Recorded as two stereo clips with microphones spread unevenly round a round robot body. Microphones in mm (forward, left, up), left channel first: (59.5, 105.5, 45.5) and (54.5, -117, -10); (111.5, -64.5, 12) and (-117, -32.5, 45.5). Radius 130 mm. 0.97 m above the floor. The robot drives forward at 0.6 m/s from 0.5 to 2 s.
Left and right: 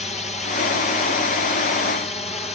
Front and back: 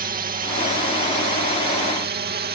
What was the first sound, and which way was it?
A drone, 150° left.